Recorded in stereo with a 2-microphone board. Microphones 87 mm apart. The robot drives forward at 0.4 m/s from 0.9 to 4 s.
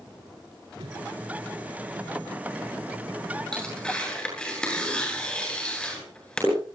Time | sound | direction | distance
0.8 | a whoosh | 85° right | 4.5 m
3.5 | tearing paper | 10° left (ahead or behind) | 8.5 m